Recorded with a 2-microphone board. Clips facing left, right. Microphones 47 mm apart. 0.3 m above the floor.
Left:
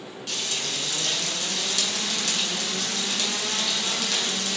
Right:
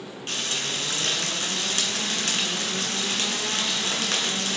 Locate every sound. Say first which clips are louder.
0.3 s frying: right 2 dB; 45° right (ahead or behind), 1.8 m